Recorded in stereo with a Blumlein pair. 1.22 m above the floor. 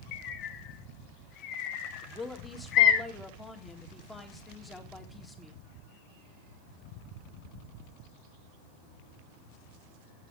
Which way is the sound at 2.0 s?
10° left.